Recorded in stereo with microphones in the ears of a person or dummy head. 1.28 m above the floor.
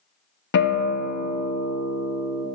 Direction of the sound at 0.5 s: 60° left (ahead or behind).